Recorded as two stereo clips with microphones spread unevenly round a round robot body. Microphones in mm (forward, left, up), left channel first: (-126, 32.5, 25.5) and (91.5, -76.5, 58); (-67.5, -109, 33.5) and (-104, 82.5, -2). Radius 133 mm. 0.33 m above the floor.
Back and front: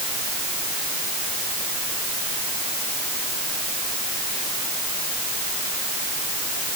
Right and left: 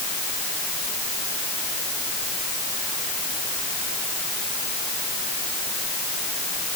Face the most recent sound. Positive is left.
No sound to turn to.